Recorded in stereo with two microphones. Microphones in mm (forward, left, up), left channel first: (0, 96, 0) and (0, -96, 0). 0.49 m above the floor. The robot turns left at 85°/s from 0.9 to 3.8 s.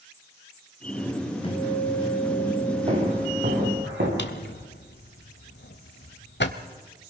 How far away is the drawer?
About 1.3 m.